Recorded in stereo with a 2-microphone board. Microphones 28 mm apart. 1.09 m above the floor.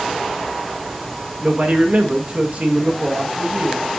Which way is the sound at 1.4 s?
60° right (ahead or behind).